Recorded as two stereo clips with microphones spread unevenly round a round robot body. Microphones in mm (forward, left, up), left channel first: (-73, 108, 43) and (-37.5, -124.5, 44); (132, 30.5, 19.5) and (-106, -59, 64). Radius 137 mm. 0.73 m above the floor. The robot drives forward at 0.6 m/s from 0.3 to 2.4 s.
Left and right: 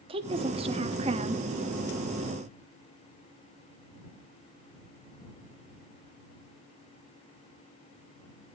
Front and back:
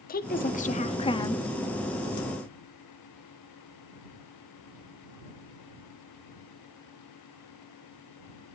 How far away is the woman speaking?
About 1.5 m.